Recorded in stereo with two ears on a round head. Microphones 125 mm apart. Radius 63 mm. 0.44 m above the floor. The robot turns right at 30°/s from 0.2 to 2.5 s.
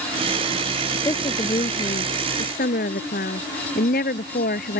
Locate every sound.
1.1 s a woman speaking: 20° left; by 4.8 s 65° left